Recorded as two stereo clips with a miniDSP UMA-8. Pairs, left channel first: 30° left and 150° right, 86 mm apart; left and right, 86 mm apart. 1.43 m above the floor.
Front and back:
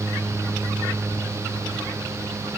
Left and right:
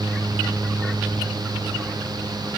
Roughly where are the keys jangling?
No keys jangling in this recording.